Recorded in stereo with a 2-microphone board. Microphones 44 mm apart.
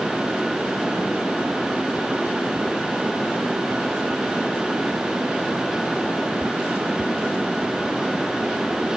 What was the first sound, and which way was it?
Only background noise.